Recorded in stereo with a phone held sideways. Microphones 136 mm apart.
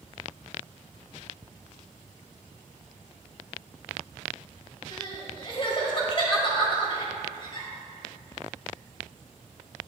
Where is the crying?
40° left (ahead or behind), 1.8 m.